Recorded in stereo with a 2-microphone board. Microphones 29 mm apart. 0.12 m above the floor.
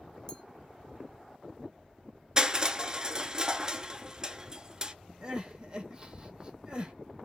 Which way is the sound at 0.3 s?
20° left (ahead or behind).